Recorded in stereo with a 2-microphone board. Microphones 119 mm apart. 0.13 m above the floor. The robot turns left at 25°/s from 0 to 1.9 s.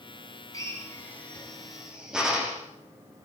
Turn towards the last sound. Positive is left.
turn(degrees=-5)  # may be behind; listen again after turning